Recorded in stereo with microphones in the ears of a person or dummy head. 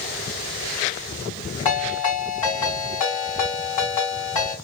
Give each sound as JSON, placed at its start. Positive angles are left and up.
{"t": 1.6, "sound": "a ringtone", "side_deg": 40, "distance_m": 2.5}